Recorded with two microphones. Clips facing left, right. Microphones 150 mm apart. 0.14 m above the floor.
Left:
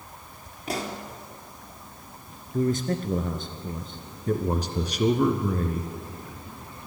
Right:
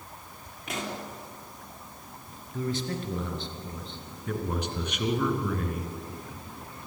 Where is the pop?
35° left (ahead or behind), 3.5 m.